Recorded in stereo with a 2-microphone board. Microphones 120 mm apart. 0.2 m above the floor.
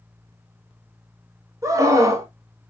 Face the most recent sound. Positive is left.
turn(degrees=-25)  # may be behind; listen again after turning